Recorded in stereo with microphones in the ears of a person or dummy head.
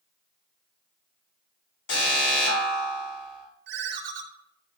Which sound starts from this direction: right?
A ringtone, at 3.7 s.